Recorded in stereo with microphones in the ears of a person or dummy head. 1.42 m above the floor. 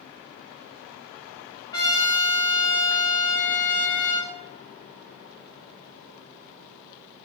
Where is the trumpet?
25° left (ahead or behind), 1.6 m.